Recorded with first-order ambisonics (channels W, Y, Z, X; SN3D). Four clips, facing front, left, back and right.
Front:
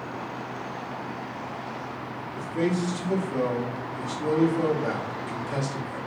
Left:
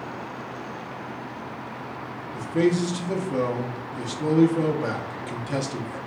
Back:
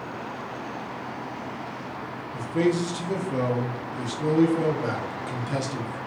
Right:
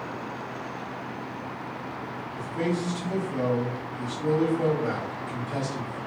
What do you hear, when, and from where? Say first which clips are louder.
2.3 s a man speaking: left 7 dB, back 3 dB; 125° left, 0.9 m